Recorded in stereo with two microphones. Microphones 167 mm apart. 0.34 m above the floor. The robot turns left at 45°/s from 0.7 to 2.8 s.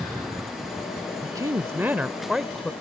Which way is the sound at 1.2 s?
20° right (ahead or behind).